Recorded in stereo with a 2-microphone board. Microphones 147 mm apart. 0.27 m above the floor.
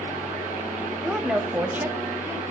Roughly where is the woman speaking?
Centre.